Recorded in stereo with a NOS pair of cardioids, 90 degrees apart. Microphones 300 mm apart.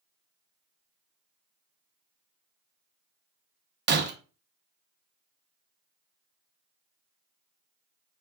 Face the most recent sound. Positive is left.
turn(degrees=-35)